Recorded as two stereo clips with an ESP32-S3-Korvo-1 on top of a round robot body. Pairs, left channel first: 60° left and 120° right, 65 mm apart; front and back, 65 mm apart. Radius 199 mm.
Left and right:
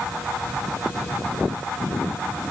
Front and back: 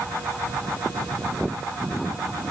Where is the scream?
No scream in this recording.